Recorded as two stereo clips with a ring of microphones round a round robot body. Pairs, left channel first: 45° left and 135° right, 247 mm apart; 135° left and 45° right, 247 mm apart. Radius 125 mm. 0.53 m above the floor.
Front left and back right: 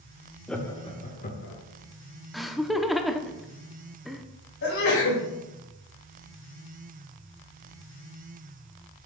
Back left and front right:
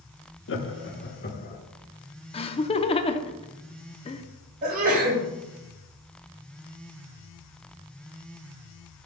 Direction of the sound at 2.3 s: 135° left.